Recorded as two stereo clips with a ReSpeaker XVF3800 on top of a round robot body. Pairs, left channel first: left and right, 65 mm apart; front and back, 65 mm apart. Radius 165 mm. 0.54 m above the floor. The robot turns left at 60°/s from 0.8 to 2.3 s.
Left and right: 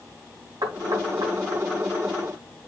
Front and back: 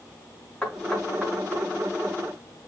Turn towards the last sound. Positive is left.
turn(degrees=-170)